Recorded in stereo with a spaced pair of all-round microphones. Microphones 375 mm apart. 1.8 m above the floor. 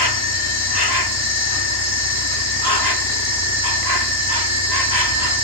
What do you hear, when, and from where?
0.0 s an insect: 80° left